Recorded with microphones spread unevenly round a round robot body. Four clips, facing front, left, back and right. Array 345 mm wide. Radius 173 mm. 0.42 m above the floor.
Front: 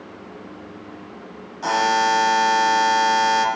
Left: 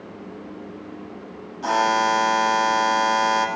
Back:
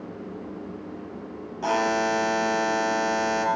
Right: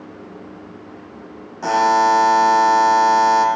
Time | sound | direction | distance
1.6 | a buzzer | 80° right | 3.5 m